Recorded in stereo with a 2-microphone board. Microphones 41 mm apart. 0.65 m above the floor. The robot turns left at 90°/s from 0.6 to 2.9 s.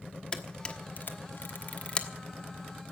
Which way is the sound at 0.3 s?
20° left (ahead or behind).